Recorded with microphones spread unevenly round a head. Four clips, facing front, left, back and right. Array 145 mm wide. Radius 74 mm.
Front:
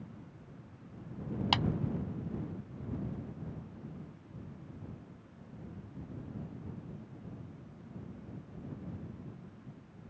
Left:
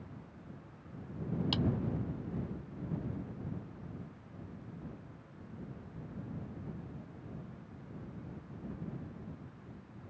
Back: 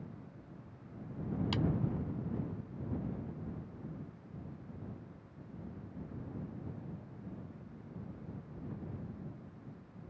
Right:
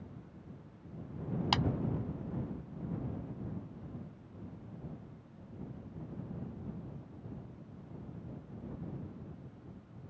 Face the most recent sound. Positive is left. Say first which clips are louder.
# right 5 dB, front 6 dB
turn(degrees=-35)